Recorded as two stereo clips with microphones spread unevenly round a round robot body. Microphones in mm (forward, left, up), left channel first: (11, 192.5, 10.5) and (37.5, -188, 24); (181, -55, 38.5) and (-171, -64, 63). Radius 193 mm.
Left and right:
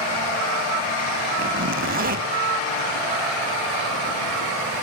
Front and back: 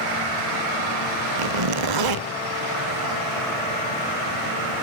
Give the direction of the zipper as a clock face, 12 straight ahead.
5 o'clock.